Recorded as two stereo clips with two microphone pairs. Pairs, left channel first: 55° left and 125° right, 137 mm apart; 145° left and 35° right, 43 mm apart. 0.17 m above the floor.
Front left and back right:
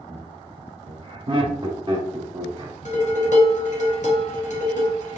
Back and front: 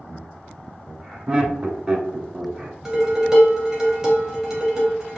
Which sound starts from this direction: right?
Laughter, at 0.1 s.